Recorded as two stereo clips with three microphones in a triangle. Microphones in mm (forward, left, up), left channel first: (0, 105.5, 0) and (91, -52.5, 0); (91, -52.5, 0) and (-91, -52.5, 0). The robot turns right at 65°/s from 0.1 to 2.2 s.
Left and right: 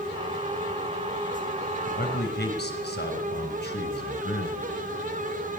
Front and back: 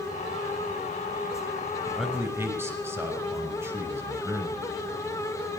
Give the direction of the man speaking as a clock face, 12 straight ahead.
9 o'clock.